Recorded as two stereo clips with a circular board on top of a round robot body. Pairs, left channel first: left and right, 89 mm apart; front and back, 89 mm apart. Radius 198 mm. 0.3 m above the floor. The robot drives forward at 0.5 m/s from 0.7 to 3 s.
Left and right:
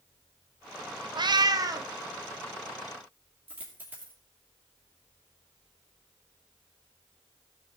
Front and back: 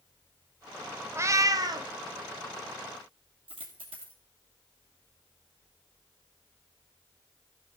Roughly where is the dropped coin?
Behind.